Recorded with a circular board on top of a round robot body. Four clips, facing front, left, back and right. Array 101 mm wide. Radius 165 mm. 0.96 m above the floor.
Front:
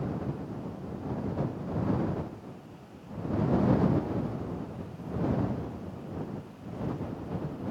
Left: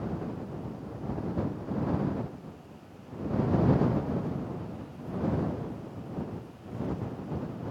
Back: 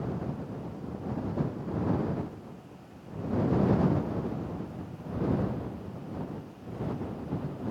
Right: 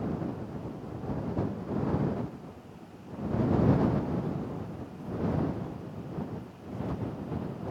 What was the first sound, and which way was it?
Only background noise.